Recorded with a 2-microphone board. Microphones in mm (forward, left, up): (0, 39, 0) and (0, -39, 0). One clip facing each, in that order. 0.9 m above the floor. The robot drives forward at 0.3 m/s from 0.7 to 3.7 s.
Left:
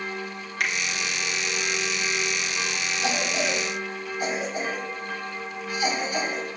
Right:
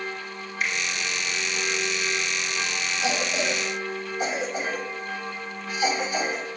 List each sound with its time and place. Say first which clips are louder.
0.6 s a finger snap: left 1 dB; 70° left (ahead or behind), 1.8 m
3.0 s a cough: even; 25° right (ahead or behind), 3.5 m; by 6.5 s 20° right (ahead or behind), 3.5 m